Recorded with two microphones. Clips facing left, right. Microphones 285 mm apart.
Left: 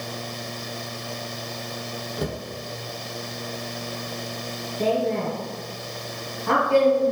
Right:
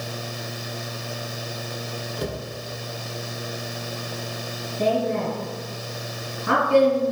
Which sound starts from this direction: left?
A cupboard door, at 2.2 s.